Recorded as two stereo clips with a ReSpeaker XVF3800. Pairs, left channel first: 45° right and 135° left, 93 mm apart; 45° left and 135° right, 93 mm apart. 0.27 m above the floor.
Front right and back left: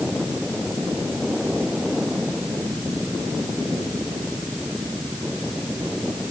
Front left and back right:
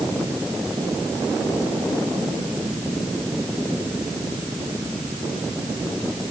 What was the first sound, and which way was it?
Only background noise.